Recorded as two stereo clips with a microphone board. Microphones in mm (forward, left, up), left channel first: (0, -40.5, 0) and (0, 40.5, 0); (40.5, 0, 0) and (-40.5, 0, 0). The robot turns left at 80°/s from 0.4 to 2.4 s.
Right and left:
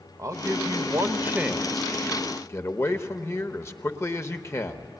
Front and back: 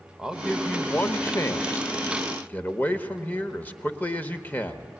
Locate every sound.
0.2 s a man speaking: 105° left, 1.0 m; by 4.9 s 55° right, 1.0 m